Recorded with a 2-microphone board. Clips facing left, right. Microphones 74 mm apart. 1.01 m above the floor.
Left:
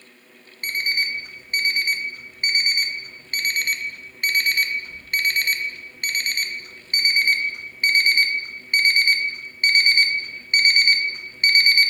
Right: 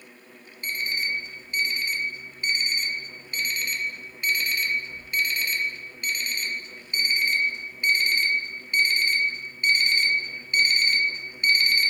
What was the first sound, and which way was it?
An alarm clock, 55° left (ahead or behind).